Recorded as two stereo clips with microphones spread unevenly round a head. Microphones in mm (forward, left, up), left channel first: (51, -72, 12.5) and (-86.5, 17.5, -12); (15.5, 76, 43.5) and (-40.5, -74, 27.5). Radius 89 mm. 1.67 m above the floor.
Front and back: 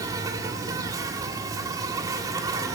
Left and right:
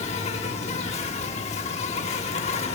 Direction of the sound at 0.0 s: 75° left.